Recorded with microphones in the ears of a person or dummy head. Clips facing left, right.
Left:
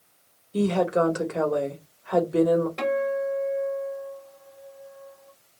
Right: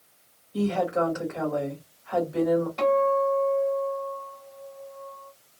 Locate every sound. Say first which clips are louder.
0.5 s a woman speaking: left 3 dB; 45° left (ahead or behind), 1.5 m
2.8 s a guitar: right 3 dB; 25° left (ahead or behind), 3 m